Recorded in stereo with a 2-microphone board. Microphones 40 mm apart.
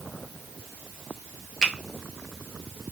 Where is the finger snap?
15° left (ahead or behind), 0.6 m.